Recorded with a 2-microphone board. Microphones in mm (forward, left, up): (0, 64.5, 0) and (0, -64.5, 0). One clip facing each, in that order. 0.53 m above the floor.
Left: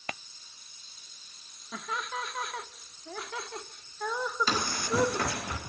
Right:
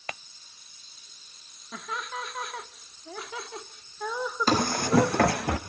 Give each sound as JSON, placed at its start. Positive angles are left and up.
{"t": 1.7, "sound": "laughter", "side_deg": 0, "distance_m": 0.9}
{"t": 4.5, "sound": "running footsteps", "side_deg": -45, "distance_m": 1.9}